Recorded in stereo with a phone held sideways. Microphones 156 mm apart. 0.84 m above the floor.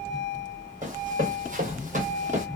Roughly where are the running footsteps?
Right.